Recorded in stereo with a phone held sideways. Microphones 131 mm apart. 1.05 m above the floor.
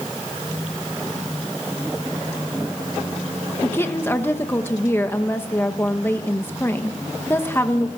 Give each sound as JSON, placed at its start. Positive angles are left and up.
{"t": 3.6, "sound": "a woman speaking", "side_deg": 20, "distance_m": 1.2}